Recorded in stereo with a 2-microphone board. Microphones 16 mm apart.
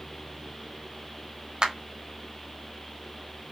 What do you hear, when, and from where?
1.6 s a clap: 55° right (ahead or behind), 1.0 m